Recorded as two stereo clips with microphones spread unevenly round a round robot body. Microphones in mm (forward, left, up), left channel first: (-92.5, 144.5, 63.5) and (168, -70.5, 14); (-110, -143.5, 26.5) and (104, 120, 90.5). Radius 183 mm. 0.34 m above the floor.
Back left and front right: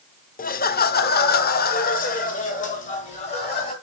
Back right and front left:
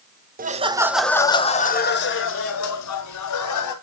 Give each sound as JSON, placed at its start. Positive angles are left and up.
{"t": 0.4, "sound": "laughter", "azimuth_deg": 100, "distance_m": 0.9}